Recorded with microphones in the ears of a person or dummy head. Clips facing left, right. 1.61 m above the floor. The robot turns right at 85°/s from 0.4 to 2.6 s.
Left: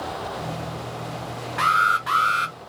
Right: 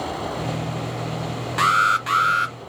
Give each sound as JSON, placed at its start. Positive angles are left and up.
{"t": 1.6, "sound": "an alarm", "azimuth_deg": -90, "distance_m": 0.7}